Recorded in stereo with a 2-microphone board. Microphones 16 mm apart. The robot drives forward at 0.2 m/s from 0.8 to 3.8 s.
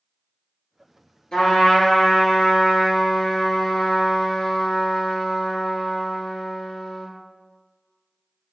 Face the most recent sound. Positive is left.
turn(degrees=75)  # may be behind; listen again after turning